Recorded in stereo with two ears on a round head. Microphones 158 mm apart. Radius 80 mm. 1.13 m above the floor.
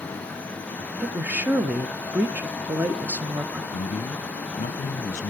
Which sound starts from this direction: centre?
A woman speaking, at 1.0 s.